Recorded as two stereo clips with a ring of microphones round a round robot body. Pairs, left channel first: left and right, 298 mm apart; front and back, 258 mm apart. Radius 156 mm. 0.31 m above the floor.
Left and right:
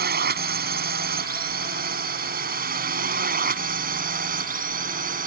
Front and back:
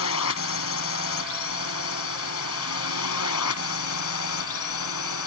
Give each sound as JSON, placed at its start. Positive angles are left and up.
{"t": 0.0, "sound": "a drone", "azimuth_deg": -35}